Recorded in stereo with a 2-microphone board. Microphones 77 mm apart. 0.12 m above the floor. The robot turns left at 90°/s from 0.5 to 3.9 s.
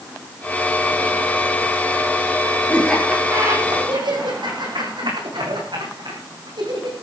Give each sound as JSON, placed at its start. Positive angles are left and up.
{"t": 2.7, "sound": "laughter", "side_deg": 20, "distance_m": 6.5}